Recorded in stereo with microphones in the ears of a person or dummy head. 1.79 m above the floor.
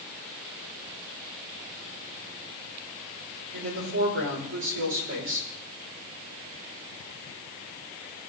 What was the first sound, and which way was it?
A woman speaking, 70° right (ahead or behind).